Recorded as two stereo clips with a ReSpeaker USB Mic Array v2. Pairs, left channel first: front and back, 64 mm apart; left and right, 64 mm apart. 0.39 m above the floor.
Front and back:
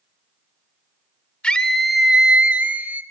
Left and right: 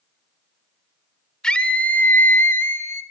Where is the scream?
40° left, 1.2 m; by 3.0 s 125° left, 1.9 m.